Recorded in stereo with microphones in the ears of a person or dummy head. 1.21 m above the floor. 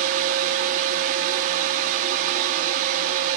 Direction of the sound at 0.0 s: 40° right (ahead or behind).